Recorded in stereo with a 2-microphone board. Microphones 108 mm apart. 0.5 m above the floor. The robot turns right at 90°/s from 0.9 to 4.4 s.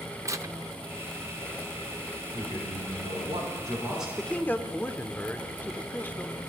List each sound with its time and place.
0.2 s tearing paper: 30° right (ahead or behind), 0.5 m; by 1.7 s 25° left (ahead or behind), 0.5 m
2.3 s a man speaking: 155° right, 6 m; by 4.1 s straight ahead, 6 m
4.2 s a man speaking: centre (ahead or behind), 1.0 m; by 6.4 s 15° left (ahead or behind), 1.0 m